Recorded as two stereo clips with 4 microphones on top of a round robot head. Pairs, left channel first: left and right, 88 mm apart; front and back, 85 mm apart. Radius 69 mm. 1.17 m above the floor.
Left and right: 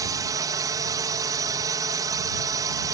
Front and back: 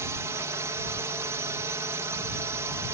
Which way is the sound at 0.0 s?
125° right.